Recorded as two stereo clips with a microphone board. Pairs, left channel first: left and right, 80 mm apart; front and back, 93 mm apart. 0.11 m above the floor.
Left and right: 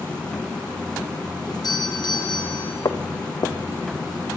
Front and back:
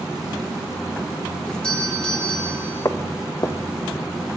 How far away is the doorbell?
About 4 m.